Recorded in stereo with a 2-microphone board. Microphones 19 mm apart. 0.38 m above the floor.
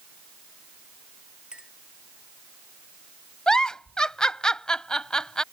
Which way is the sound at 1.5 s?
55° right (ahead or behind).